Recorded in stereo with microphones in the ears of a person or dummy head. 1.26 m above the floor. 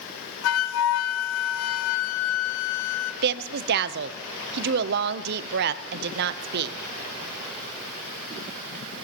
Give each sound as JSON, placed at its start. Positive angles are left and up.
{"t": 0.4, "sound": "a flute", "side_deg": 75, "distance_m": 0.8}
{"t": 3.2, "sound": "a woman speaking", "side_deg": -55, "distance_m": 0.7}